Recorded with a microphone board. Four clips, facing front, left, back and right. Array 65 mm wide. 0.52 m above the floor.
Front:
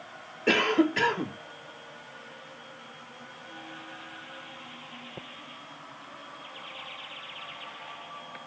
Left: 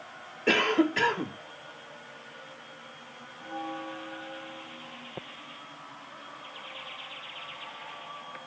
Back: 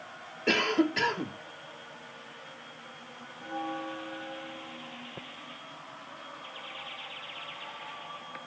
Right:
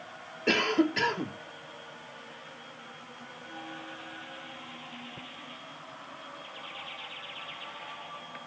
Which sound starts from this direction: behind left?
A bell, at 3.4 s.